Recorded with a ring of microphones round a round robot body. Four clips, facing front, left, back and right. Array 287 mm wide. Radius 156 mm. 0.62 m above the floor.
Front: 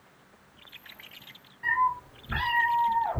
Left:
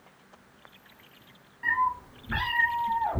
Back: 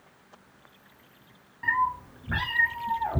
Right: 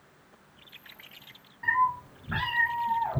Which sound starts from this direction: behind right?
A cat meowing, at 1.6 s.